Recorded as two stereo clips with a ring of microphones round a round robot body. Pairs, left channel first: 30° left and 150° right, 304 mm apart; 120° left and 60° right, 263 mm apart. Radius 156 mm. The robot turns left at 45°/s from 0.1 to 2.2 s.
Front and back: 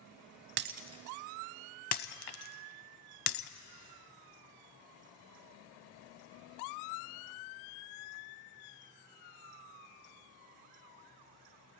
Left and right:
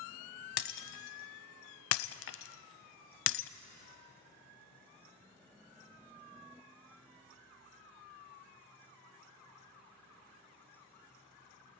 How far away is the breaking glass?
About 0.6 m.